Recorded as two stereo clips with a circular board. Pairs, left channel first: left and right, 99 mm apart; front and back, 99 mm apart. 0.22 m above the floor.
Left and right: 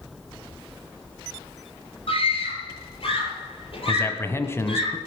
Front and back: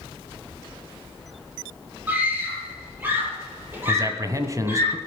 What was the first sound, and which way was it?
A scream, 110° left.